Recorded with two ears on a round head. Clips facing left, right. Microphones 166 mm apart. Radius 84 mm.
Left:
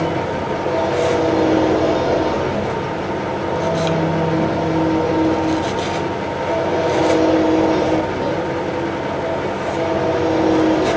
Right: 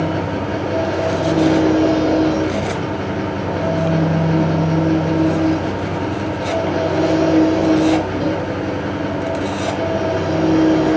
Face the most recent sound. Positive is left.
turn(degrees=-40)  # may be behind; listen again after turning